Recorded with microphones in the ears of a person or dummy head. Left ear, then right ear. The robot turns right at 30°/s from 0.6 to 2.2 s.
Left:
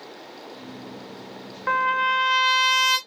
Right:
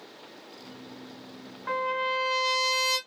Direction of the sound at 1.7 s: 40° left (ahead or behind).